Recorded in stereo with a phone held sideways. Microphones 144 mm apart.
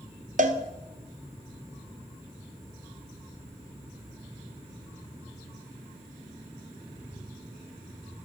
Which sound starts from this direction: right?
A cowbell, at 0.4 s.